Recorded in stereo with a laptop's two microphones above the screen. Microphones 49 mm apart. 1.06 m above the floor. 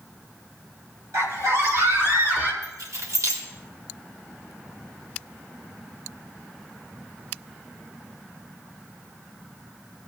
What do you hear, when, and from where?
1.1 s a scream: 70° right (ahead or behind), 2.5 m; by 2.5 s 45° right (ahead or behind), 2.5 m
2.6 s keys jangling: 80° right, 2.0 m